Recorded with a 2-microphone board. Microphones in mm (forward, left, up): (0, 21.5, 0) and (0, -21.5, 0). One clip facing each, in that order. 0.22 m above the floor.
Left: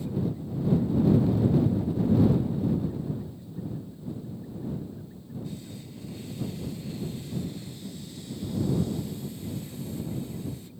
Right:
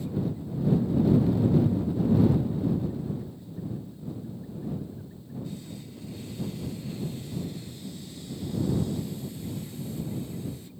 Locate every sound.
Only background noise.